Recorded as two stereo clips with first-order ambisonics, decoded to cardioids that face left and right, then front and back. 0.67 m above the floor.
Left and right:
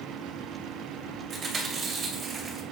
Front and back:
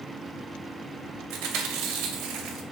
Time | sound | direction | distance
1.3 | chewing | 160° right | 2.5 m